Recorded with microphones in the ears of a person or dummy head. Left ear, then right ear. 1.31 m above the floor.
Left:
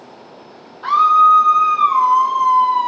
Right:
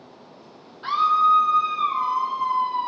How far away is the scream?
About 2 m.